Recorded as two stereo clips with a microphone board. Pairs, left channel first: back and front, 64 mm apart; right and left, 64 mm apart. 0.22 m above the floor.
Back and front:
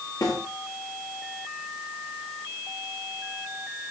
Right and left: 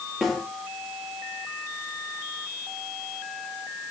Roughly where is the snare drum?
Behind.